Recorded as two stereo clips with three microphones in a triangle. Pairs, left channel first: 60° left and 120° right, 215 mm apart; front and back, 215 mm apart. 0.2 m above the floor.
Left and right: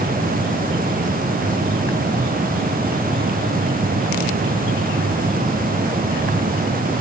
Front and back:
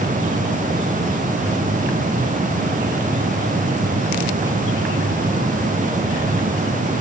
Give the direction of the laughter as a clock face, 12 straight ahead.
No laughter in this recording.